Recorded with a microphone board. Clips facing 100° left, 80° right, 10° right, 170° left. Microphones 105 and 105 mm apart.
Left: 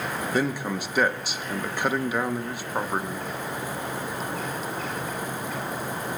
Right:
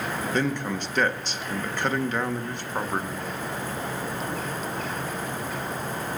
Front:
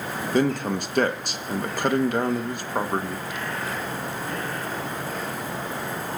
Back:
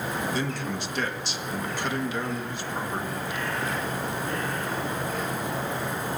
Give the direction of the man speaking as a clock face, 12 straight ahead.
11 o'clock.